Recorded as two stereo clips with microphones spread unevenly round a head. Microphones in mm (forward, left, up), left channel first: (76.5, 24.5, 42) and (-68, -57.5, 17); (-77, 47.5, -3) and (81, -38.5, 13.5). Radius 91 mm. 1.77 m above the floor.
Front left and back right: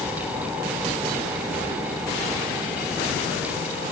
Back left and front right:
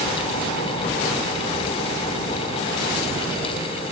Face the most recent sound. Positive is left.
No sound to turn to.